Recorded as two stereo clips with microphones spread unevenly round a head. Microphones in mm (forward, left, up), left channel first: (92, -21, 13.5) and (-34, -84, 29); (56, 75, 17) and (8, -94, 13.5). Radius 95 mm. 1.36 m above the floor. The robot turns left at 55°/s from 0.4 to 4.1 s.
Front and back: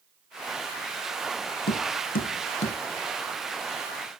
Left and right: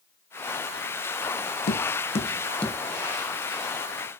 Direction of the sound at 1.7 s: 45° left.